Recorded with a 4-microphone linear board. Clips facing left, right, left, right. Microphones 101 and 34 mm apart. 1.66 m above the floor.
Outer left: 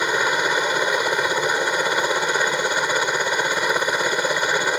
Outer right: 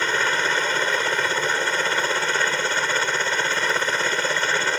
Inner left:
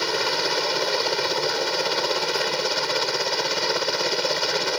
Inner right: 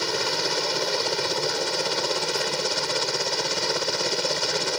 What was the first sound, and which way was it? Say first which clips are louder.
A helicopter: outer left 2 dB, inner left 2 dB; 15° left (ahead or behind).